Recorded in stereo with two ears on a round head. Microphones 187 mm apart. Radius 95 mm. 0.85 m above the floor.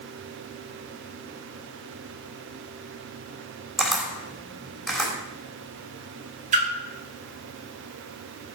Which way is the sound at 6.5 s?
35° right (ahead or behind).